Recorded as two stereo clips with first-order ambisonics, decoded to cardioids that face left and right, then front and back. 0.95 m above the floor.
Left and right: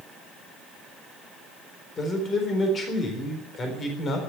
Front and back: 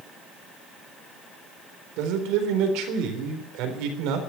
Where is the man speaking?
155° left, 3.5 m.